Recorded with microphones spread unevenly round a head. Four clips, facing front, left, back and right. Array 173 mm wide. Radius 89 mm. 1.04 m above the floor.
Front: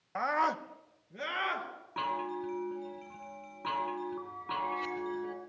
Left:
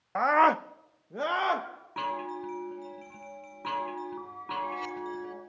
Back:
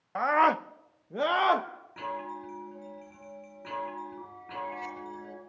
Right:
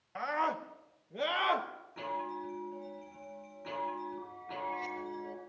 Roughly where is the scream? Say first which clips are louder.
Left 11 dB, back 6 dB; left.